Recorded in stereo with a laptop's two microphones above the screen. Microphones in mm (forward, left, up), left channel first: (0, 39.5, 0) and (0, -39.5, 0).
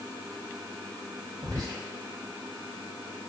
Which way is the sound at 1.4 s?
55° right (ahead or behind).